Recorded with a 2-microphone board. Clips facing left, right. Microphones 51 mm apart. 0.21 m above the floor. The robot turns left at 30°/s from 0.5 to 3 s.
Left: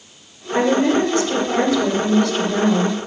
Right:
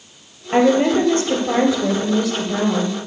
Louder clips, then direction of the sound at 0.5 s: Right 2 dB; 125° right.